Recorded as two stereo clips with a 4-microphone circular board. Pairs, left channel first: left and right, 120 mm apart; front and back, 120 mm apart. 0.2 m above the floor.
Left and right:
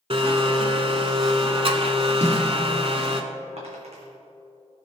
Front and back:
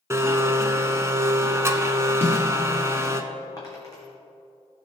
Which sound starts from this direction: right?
A snare drum, at 2.2 s.